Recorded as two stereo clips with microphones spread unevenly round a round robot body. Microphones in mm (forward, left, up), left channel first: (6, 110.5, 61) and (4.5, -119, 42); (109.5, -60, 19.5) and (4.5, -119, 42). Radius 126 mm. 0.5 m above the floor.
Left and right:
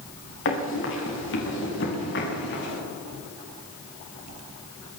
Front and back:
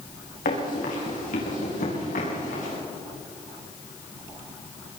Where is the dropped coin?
No dropped coin in this recording.